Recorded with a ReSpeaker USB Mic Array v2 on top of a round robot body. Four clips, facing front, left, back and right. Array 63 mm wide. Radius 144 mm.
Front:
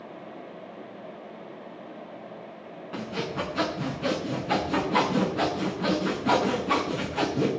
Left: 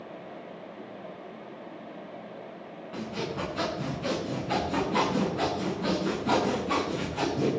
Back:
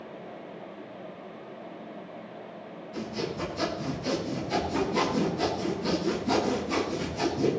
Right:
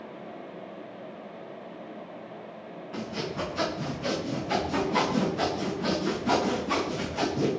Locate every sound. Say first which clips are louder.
2.9 s sawing: even, front 2 dB; 5° left, 9 m